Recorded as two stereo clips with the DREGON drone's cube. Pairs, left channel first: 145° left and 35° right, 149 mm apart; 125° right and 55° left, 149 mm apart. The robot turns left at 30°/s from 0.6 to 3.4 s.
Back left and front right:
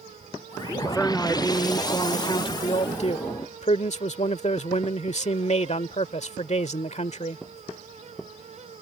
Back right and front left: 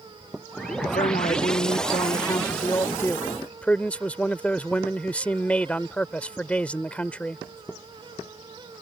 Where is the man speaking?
125° right; by 7.4 s 155° left.